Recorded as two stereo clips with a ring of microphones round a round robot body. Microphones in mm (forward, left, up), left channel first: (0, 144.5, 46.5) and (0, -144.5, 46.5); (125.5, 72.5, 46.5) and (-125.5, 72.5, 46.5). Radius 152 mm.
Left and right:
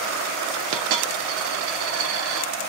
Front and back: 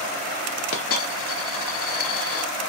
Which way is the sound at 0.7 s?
50° right.